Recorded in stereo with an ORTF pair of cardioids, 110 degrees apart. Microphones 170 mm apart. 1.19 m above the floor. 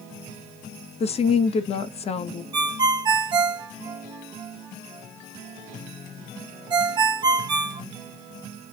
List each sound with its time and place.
1.0 s a woman speaking: 40° left, 0.6 m
2.5 s a ringtone: 30° right, 1.2 m